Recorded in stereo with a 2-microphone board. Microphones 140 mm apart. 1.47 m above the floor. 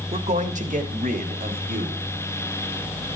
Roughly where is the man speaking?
Right.